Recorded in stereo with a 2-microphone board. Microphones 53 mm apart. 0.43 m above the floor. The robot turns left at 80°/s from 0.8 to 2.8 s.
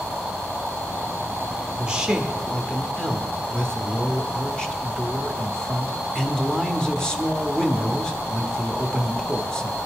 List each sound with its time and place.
1.8 s a man speaking: 20° right (ahead or behind), 0.9 m; by 9.8 s 15° left (ahead or behind), 0.9 m